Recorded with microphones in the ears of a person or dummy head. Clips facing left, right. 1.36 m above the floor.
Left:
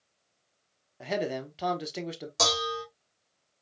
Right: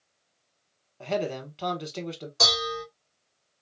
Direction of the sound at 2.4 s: 70° left (ahead or behind).